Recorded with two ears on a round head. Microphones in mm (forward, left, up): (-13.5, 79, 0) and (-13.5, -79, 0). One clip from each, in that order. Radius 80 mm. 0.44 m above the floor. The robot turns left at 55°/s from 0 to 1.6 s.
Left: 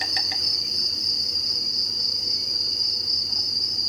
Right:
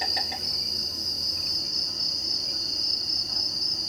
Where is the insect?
100° left, 1.1 m; by 3.9 s 10° left, 1.1 m.